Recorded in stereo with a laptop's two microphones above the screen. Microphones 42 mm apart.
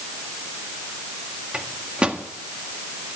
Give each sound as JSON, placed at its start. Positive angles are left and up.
{"t": 1.5, "sound": "a microwave", "side_deg": -25, "distance_m": 1.5}